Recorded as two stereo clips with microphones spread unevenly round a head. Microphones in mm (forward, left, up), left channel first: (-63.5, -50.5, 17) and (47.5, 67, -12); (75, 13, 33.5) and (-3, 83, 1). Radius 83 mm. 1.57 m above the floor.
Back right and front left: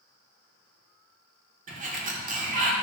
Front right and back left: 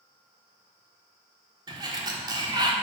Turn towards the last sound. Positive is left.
turn(degrees=80)